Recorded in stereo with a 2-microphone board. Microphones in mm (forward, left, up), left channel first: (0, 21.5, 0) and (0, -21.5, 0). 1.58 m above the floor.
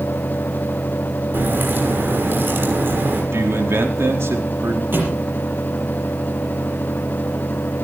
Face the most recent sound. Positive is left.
turn(degrees=-55)  # may be behind; listen again after turning